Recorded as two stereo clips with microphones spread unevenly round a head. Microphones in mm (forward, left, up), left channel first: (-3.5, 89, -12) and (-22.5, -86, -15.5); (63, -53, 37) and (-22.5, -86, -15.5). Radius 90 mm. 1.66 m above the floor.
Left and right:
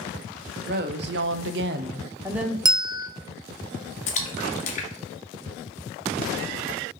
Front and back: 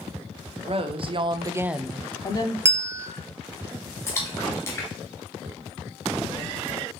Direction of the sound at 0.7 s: 135° right.